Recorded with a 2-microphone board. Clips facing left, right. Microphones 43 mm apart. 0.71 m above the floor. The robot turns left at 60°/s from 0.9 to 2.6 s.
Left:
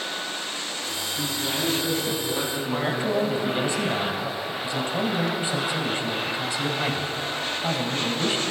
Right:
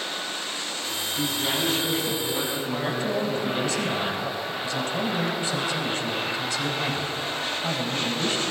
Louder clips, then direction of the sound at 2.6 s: Left 2 dB; 20° left (ahead or behind).